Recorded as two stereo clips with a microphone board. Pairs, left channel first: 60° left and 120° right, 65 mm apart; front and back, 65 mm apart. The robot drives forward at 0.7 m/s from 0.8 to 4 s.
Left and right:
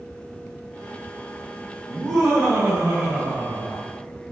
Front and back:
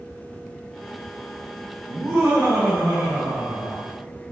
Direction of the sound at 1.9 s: 150° left.